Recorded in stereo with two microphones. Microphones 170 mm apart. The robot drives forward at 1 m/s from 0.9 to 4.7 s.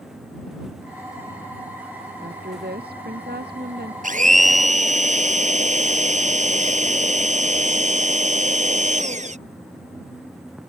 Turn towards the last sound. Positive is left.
turn(degrees=-45)  # may be behind; listen again after turning